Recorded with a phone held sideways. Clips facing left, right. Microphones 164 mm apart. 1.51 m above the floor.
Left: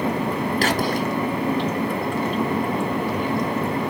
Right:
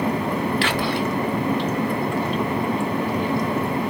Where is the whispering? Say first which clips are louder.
Left 1 dB; 40° left (ahead or behind), 0.9 m.